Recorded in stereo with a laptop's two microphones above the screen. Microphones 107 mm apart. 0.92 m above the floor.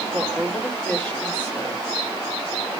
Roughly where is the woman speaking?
Centre.